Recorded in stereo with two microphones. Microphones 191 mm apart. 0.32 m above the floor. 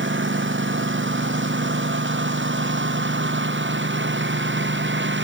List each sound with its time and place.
0.0 s a lawn mower: 90° right; by 5.2 s 80° right